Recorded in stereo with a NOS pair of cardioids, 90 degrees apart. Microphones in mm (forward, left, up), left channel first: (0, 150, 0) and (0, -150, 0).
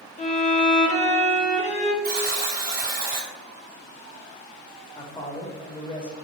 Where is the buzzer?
30° right, 1.3 m.